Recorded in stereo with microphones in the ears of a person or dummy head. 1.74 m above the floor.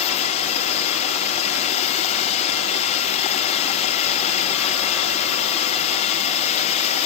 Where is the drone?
40° left (ahead or behind).